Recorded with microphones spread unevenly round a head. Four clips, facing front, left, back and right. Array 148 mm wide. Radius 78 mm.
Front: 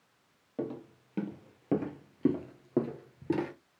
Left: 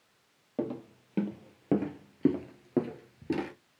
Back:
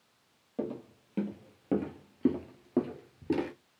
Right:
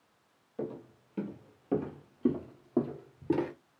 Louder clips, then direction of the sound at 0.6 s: Left 4 dB, back 1 dB; 85° left.